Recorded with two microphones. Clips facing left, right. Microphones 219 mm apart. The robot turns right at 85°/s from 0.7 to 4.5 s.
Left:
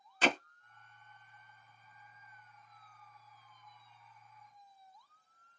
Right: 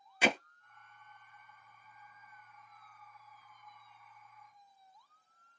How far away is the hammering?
About 0.8 m.